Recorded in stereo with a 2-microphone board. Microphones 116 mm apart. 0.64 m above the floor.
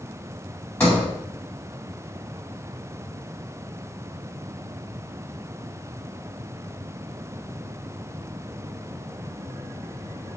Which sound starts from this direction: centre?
A sliding door, at 0.8 s.